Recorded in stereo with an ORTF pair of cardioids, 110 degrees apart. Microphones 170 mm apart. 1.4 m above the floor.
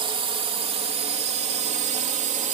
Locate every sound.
0.0 s a drone: 30° right; by 2.5 s 50° right